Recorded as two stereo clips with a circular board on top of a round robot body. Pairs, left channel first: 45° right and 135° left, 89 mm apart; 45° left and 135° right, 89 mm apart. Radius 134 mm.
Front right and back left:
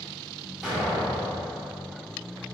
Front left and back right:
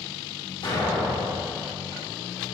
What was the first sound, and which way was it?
An explosion, 55° left.